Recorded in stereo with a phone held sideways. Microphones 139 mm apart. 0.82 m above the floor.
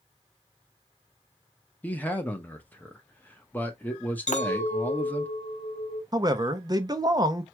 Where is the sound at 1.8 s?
15° left (ahead or behind), 0.9 m.